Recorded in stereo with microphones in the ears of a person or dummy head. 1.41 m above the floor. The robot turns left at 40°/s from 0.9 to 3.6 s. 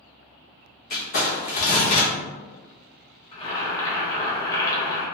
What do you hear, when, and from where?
0.9 s crumpling: 105° left, 0.8 m; by 2.1 s 60° left, 0.8 m
3.3 s boiling: 30° left (ahead or behind), 1.1 m; by 5.1 s 20° left (ahead or behind), 1.1 m